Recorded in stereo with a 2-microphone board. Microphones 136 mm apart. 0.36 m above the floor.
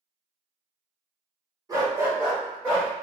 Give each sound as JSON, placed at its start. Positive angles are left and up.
{"t": 1.7, "sound": "a dog barking", "side_deg": -25, "distance_m": 1.0}